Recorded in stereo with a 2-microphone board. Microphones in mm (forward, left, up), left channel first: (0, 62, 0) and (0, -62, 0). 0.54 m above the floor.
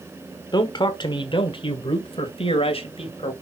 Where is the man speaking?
35° left (ahead or behind), 1.3 m; by 3.3 s 55° left (ahead or behind), 2.5 m.